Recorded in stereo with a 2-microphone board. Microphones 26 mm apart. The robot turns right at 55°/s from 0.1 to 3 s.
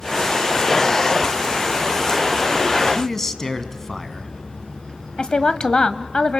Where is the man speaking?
20° left (ahead or behind), 1.9 m; by 4.3 s 15° left (ahead or behind), 1.9 m.